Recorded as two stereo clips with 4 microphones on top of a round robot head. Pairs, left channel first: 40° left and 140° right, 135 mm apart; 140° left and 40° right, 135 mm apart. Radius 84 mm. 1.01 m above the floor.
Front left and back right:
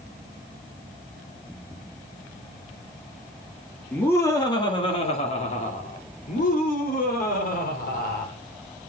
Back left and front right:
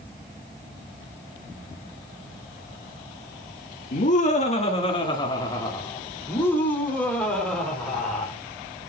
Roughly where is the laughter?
Behind left.